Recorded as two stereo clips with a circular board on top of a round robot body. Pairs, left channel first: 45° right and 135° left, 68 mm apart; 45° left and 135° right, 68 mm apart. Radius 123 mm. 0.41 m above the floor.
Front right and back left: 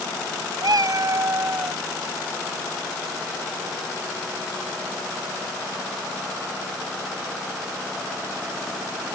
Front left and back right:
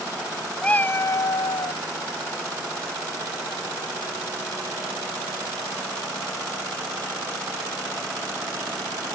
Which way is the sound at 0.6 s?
125° left.